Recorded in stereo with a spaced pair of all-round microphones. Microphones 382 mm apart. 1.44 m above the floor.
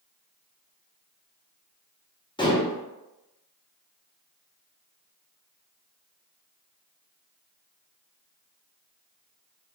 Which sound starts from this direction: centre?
Dishes clattering, at 2.4 s.